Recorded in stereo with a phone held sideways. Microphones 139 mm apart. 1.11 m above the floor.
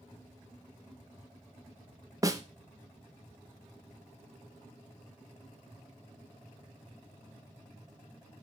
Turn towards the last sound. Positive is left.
turn(degrees=-25)  # may be behind; listen again after turning